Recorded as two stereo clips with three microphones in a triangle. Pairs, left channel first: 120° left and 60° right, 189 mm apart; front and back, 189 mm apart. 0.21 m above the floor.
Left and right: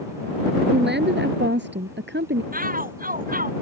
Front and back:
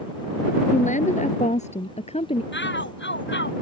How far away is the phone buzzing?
No phone buzzing in this recording.